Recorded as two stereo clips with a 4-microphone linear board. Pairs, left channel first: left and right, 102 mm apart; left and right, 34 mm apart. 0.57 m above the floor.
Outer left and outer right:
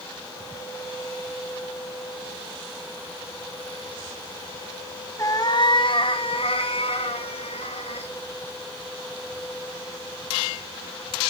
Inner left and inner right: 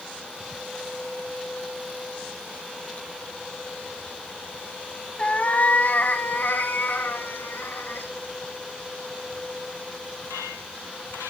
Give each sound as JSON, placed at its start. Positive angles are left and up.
{"t": 5.2, "sound": "a cat meowing", "side_deg": 35, "distance_m": 1.1}